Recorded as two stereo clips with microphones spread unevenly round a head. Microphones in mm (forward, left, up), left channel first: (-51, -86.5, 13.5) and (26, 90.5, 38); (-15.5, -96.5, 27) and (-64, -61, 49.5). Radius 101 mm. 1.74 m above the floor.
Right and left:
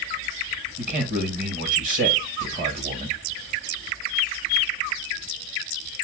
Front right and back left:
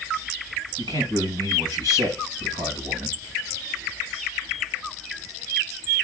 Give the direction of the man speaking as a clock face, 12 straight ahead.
8 o'clock.